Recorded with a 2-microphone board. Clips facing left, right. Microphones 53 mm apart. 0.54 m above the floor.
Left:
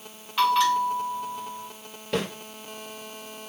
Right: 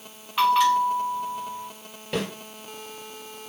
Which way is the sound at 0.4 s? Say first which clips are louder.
Right 2 dB; 10° right (ahead or behind).